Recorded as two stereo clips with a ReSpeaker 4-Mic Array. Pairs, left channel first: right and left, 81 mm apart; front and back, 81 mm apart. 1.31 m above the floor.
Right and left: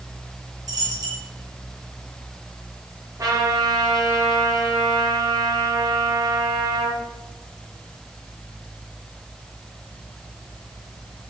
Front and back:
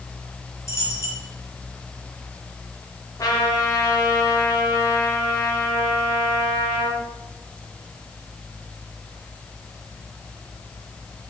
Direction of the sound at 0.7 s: 50° left.